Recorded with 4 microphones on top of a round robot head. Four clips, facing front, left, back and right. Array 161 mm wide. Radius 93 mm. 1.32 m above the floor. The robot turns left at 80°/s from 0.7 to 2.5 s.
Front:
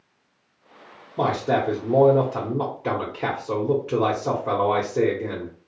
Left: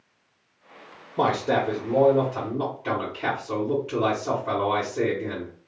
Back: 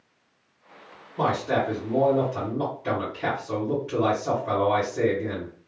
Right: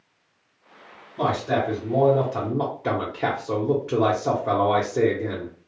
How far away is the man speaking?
About 1.0 m.